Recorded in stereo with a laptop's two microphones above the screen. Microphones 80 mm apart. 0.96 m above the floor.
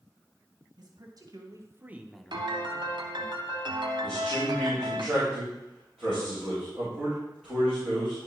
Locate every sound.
0.8 s a man speaking: 60° right (ahead or behind), 1.6 m; by 3.3 s 45° left (ahead or behind), 1.5 m
2.3 s a piano: 70° right (ahead or behind), 1.0 m
4.0 s a man speaking: 5° left (ahead or behind), 3.5 m